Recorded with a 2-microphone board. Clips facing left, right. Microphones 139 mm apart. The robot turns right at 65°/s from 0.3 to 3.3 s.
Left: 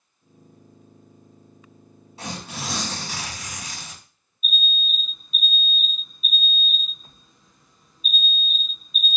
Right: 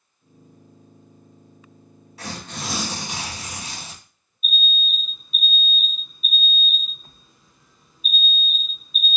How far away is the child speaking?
No child speaking in this recording.